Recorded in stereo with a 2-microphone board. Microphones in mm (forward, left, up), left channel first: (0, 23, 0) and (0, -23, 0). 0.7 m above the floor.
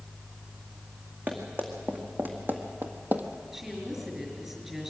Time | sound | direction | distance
1.3 | running footsteps | 40° right (ahead or behind) | 3 m
3.5 | a woman speaking | 10° right (ahead or behind) | 5.5 m